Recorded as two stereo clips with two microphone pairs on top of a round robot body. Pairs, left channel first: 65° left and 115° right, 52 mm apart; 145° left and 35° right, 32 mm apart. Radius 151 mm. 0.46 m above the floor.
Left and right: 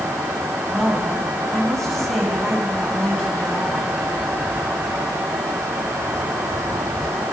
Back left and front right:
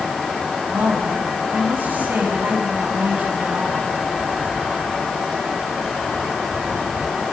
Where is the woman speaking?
20° right, 6 m.